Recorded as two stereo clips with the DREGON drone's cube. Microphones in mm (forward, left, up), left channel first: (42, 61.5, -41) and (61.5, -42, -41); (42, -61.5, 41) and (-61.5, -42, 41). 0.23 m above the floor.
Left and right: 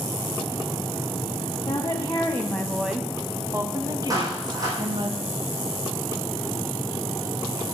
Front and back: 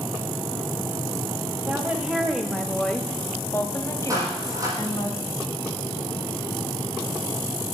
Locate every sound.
1.7 s a woman speaking: 105° left, 1.4 m; by 5.1 s 60° right, 2 m
4.1 s a clap: 135° right, 6.5 m